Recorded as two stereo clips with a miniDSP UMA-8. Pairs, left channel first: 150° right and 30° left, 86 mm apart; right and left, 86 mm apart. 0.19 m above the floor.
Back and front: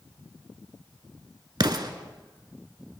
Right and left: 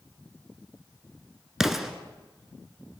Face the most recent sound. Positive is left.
turn(degrees=5)